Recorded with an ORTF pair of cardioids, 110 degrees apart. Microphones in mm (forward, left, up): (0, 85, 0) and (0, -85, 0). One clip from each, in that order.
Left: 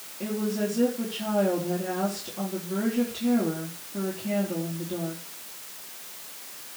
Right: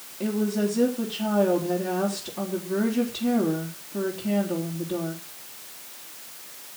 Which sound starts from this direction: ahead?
A woman speaking, at 0.2 s.